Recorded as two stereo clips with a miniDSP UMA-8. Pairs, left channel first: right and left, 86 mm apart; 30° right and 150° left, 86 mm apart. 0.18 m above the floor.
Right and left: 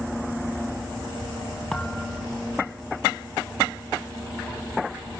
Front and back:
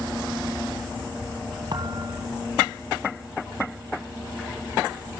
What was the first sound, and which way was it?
A thud, 170° right.